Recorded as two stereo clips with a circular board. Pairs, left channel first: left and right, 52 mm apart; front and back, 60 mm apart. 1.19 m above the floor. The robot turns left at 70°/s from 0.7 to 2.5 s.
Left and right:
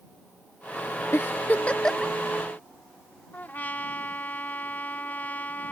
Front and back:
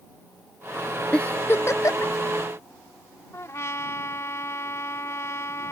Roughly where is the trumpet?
Ahead left.